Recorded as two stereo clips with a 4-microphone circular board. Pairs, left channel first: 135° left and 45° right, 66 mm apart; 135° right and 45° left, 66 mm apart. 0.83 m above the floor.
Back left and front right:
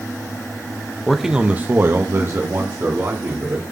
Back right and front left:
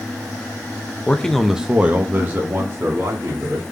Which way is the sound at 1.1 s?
155° right.